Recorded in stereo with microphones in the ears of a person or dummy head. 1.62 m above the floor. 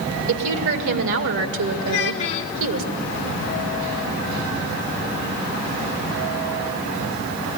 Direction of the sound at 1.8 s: 35° left (ahead or behind).